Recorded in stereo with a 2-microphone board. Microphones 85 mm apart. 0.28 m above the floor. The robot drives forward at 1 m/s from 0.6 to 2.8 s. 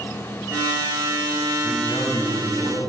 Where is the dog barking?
No dog barking in this recording.